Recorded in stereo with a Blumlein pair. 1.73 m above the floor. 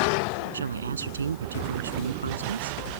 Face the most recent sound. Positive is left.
turn(degrees=-70)